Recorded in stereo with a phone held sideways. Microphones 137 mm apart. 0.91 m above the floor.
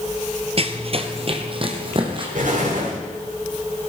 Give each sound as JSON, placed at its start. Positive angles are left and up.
{"t": 0.6, "sound": "running footsteps", "side_deg": -45, "distance_m": 1.3}
{"t": 2.4, "sound": "an explosion", "side_deg": -70, "distance_m": 7.5}